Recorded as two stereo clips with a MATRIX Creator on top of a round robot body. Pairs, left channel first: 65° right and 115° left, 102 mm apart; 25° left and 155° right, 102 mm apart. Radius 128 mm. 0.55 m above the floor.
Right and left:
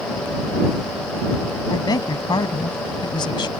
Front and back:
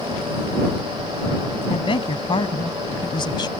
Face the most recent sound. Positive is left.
turn(degrees=-25)